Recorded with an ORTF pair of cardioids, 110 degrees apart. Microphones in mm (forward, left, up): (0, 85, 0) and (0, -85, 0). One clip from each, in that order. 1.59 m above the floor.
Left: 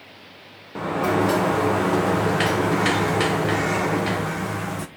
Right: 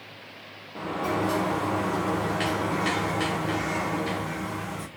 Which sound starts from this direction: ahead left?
A sliding door, at 0.8 s.